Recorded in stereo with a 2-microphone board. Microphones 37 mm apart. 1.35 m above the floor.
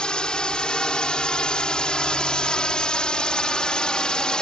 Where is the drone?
25° left (ahead or behind).